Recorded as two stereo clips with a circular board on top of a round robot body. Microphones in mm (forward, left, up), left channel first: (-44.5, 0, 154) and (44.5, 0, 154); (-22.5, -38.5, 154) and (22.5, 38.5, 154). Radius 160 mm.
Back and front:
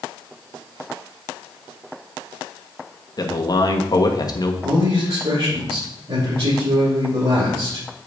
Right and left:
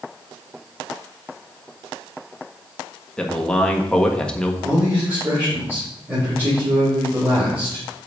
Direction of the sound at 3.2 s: 165° left.